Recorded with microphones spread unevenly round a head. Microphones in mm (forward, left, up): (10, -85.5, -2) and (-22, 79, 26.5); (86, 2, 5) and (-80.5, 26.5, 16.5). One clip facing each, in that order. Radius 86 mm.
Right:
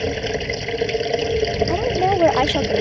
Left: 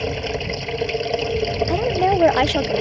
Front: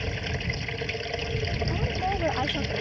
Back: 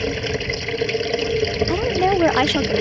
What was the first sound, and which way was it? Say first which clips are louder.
Running water: right 2 dB, back 11 dB; 160° right.